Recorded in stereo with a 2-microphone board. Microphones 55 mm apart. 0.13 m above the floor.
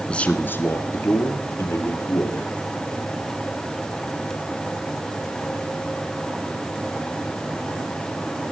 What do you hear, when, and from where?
0.1 s a man speaking: 15° left (ahead or behind), 1.1 m; by 2.5 s 65° left (ahead or behind), 3.5 m